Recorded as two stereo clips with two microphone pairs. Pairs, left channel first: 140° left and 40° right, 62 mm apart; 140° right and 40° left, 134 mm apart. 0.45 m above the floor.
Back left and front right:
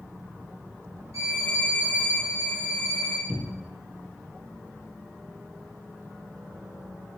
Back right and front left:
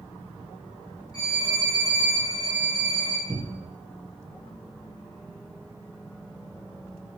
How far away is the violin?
About 1.7 m.